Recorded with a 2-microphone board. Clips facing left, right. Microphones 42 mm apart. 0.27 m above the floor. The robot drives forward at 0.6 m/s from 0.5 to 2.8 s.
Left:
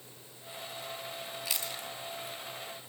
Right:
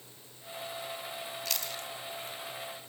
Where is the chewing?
15° left (ahead or behind), 2.5 m; by 2.4 s 10° left (ahead or behind), 3 m.